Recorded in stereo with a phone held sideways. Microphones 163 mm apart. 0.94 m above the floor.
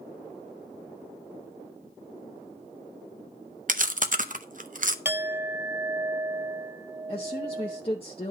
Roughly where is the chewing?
Right.